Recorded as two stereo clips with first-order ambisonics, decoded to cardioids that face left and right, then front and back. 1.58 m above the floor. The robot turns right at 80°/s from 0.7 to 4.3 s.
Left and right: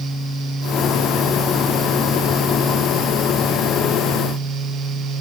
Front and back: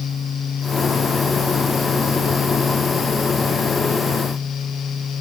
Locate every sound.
Only background noise.